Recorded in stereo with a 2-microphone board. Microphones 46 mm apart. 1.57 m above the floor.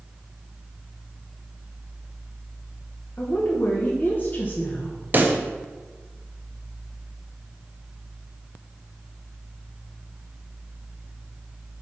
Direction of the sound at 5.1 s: 40° right (ahead or behind).